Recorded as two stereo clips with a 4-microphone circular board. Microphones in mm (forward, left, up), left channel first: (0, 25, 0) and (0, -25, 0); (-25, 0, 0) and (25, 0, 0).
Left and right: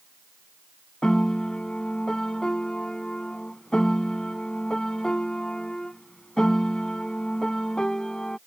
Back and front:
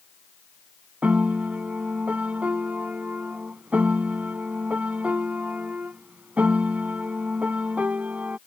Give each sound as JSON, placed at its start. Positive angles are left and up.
{"t": 1.0, "sound": "a piano", "azimuth_deg": 25}